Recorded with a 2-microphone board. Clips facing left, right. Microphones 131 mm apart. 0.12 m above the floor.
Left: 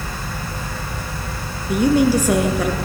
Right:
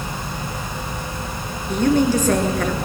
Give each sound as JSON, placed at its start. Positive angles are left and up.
{"t": 1.7, "sound": "a woman speaking", "side_deg": 10, "distance_m": 1.9}